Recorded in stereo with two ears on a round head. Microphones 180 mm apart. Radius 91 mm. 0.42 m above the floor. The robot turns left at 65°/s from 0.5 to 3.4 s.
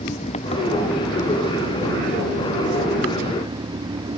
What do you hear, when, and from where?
0.0 s an engine running: 30° left; by 4.2 s 155° right